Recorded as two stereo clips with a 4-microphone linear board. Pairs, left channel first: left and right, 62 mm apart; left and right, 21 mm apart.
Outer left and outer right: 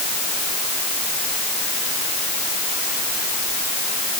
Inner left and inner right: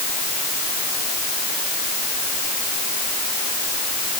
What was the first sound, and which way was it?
Only background noise.